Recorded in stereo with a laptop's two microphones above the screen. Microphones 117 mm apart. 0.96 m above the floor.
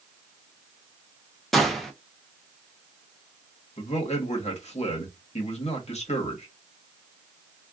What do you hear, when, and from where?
1.5 s a gunshot: centre (ahead or behind), 0.6 m
3.8 s a man speaking: 70° left (ahead or behind), 1.1 m